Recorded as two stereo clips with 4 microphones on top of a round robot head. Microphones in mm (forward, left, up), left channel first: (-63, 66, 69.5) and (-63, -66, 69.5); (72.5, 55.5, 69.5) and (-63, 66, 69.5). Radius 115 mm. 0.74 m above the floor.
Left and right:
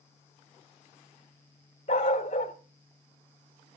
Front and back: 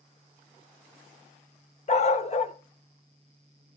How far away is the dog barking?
About 1.0 m.